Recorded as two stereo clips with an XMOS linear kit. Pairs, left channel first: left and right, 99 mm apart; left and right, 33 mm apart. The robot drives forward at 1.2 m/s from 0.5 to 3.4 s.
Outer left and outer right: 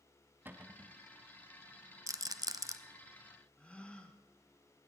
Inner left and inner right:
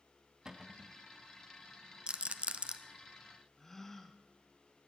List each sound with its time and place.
0.5 s a cupboard door: 20° right (ahead or behind), 0.7 m; by 1.0 s 25° right (ahead or behind), 0.5 m
2.1 s a rattle: 30° right (ahead or behind), 0.8 m
3.6 s a gasp: 10° left (ahead or behind), 1.1 m